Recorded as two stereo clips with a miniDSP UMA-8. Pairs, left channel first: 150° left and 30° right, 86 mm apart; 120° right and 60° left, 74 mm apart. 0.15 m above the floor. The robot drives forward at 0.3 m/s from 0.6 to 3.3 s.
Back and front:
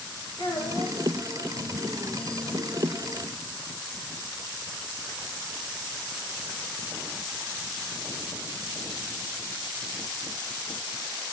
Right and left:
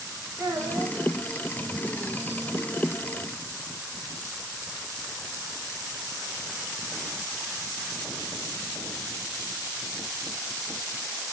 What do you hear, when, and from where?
0.4 s a child speaking: 130° left, 10 m